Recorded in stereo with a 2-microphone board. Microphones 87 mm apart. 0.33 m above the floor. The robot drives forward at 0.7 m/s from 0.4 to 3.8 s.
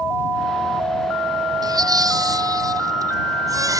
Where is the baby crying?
45° right (ahead or behind); by 3.8 s 40° right (ahead or behind).